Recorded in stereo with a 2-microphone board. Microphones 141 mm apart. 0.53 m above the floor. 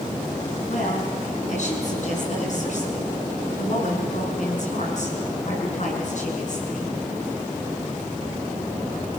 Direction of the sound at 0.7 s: 60° left (ahead or behind).